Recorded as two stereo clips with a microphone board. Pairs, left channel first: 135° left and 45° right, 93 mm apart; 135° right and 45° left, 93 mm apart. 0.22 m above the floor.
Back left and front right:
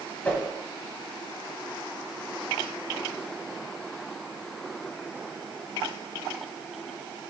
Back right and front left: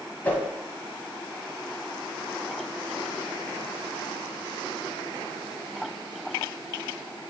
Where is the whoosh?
Straight behind, 1.2 m.